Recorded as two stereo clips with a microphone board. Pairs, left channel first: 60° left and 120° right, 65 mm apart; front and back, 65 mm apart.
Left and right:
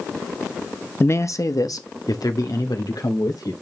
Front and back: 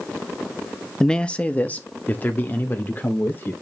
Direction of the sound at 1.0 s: 75° left.